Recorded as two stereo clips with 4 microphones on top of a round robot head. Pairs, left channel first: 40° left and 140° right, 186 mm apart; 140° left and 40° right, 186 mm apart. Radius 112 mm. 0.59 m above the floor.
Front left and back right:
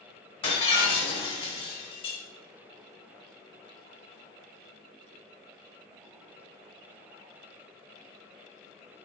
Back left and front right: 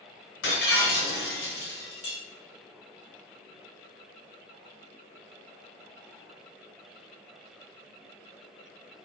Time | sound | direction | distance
0.4 | breaking glass | 105° left | 2.5 m